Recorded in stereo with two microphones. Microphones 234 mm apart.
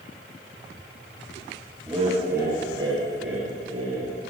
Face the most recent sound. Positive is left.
turn(degrees=-70)  # may be behind; listen again after turning